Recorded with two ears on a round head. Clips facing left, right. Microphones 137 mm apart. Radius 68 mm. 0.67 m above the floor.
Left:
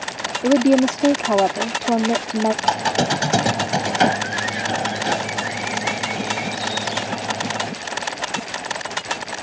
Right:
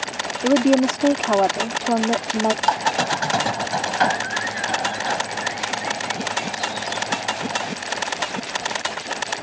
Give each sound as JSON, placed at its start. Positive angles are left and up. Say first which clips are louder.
{"t": 0.4, "sound": "a woman speaking", "louder": "left 2 dB", "side_deg": 5}
{"t": 2.6, "sound": "a squeak", "louder": "left 1 dB", "side_deg": 30}